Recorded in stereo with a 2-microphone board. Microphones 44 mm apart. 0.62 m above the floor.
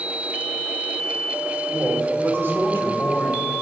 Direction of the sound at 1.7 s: 50° right (ahead or behind).